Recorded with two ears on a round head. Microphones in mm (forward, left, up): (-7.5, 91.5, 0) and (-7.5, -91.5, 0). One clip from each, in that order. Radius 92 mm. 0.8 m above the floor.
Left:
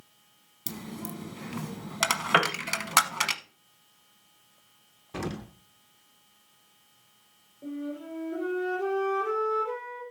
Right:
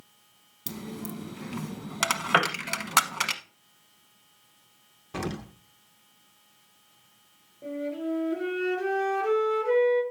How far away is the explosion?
About 0.6 m.